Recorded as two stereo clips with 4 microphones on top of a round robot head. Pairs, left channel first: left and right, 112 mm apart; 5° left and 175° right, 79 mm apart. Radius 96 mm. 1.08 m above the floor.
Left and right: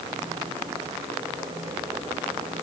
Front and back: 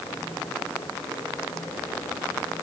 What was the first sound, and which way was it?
Only background noise.